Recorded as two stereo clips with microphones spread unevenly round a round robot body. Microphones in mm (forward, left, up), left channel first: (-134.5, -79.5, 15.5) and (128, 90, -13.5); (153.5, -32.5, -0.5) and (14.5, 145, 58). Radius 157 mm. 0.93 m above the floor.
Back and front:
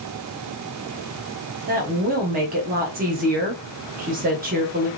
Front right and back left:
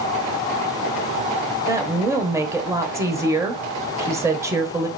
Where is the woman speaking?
35° left, 0.7 m.